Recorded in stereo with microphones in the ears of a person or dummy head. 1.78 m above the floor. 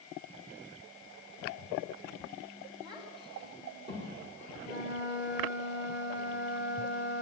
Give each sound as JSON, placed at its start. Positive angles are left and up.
{"t": 2.8, "sound": "a child speaking", "side_deg": -20, "distance_m": 3.5}
{"t": 4.6, "sound": "a flute", "side_deg": -70, "distance_m": 2.0}